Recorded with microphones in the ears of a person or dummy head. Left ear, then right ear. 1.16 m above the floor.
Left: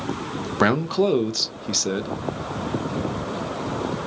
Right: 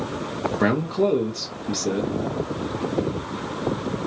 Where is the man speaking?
35° left (ahead or behind), 0.5 m.